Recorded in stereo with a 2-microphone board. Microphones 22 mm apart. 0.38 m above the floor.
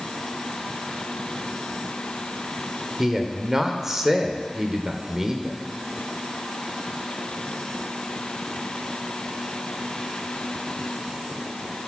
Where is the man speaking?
20° right (ahead or behind), 0.9 m.